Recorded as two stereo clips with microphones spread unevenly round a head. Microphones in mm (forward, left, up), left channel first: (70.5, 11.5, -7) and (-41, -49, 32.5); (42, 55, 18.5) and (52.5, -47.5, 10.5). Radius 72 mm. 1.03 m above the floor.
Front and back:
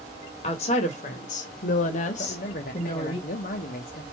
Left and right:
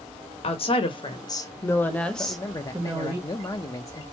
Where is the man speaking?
40° left, 0.7 m.